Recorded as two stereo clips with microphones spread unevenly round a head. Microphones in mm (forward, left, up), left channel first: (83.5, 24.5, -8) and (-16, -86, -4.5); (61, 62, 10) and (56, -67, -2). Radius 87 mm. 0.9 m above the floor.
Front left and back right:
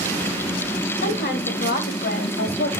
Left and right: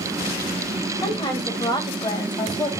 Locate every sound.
1.0 s a woman speaking: 30° left, 3.5 m